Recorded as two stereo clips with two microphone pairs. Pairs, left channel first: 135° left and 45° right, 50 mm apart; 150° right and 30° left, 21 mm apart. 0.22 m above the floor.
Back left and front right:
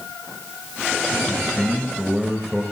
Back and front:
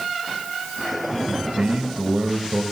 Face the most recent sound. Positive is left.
turn(degrees=30)